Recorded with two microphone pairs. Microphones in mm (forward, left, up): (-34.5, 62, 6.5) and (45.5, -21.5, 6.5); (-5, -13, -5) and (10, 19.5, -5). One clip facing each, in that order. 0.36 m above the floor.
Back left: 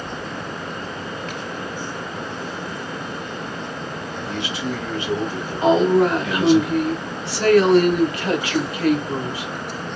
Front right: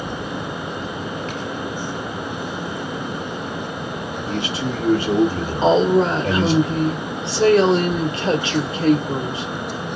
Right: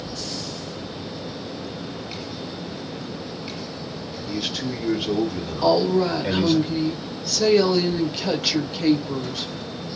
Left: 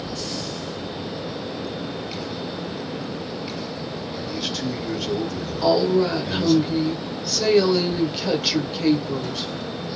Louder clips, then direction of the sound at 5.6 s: Even, even; 15° right.